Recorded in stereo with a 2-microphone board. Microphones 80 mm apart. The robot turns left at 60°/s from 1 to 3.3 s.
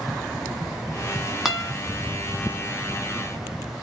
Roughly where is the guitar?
Centre.